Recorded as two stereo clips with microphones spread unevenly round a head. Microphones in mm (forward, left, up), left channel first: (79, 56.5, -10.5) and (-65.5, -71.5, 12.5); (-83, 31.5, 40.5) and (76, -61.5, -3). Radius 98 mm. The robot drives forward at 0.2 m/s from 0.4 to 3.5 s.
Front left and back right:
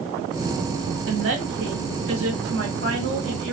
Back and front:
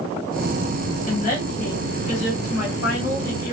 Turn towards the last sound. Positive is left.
turn(degrees=-170)